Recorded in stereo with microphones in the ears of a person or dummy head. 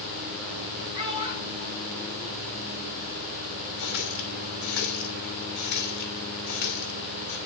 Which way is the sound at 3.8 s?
55° left (ahead or behind).